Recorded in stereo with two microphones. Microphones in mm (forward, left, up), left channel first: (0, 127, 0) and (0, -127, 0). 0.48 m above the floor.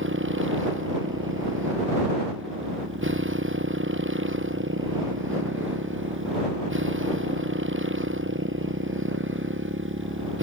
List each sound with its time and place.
0.0 s a motorcycle: 50° right (ahead or behind)